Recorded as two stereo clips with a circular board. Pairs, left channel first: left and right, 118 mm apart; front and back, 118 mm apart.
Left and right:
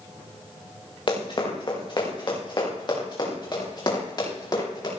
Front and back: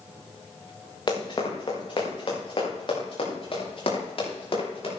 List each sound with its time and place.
1.1 s running footsteps: 45° left, 5 m; by 4.9 s 40° left, 9 m